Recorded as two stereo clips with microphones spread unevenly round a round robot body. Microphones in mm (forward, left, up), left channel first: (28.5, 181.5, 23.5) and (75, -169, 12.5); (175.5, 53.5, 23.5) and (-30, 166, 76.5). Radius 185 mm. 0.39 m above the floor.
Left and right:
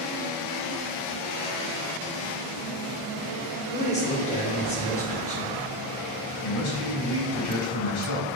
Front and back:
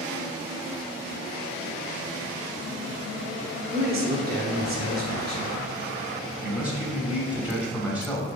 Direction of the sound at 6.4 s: 60° left.